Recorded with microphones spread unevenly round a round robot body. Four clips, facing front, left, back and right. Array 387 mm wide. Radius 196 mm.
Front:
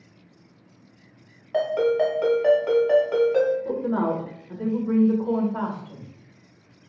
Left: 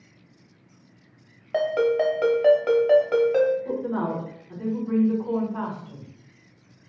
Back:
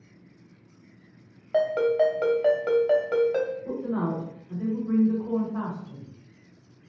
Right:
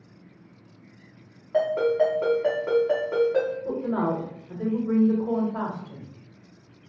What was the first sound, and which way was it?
A ringtone, 115° left.